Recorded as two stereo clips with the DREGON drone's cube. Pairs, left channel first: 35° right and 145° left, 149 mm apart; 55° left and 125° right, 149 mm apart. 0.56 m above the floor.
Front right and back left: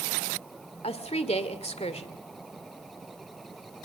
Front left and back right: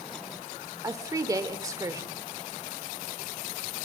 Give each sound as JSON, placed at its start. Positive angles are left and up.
{"t": 0.8, "sound": "a woman speaking", "azimuth_deg": -65, "distance_m": 1.9}